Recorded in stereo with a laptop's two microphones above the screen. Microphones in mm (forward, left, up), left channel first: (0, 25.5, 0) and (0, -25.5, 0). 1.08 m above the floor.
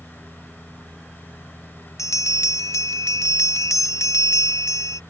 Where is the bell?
80° left.